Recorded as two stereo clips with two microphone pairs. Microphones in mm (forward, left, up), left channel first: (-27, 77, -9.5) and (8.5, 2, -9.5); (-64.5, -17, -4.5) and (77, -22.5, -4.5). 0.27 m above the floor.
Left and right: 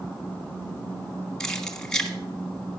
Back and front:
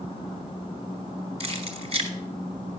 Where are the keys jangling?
35° left, 1.4 m.